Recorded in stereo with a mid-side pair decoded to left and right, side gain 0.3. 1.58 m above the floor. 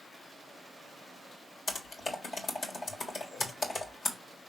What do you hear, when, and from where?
1.7 s typing on a keyboard: 60° left, 1.6 m